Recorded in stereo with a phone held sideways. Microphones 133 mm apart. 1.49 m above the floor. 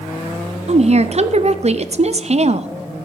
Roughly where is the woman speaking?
Right.